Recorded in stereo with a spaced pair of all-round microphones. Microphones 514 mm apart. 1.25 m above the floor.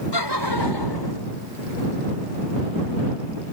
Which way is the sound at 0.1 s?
50° left (ahead or behind).